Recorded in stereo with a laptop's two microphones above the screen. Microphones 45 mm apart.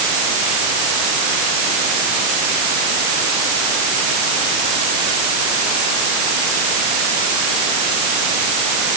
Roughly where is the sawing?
No sawing in this recording.